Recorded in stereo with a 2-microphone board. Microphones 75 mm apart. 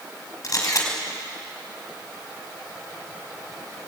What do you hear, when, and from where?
0.4 s a camera shutter: 50° left (ahead or behind), 4.5 m